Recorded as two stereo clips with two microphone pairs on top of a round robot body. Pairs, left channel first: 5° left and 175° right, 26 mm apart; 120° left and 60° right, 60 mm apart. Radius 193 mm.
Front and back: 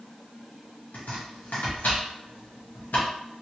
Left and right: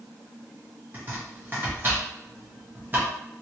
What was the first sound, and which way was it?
Chopping, 5° right.